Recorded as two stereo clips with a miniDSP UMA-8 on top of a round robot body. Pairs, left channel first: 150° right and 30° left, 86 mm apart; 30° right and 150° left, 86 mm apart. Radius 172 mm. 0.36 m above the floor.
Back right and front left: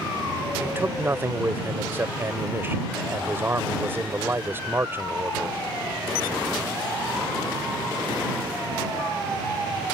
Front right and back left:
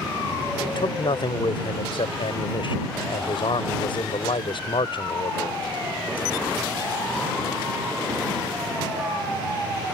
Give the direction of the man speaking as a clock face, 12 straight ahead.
1 o'clock.